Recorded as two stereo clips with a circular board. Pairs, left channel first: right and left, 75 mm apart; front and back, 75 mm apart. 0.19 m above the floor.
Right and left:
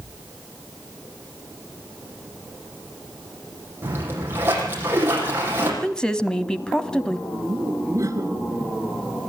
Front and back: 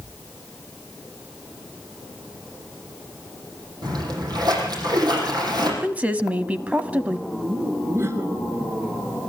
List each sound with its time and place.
3.8 s a splash: 150° left, 7.5 m
5.8 s a woman speaking: 145° right, 1.1 m
7.3 s laughter: 130° left, 3 m